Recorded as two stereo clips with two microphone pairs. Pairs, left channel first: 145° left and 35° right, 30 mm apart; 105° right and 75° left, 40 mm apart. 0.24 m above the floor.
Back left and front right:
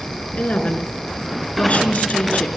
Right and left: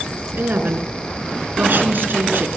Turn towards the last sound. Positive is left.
turn(degrees=105)